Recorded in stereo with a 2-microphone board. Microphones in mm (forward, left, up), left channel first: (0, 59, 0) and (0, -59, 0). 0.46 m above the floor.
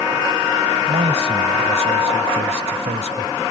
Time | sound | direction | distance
0.9 | a man speaking | 65° right (ahead or behind) | ?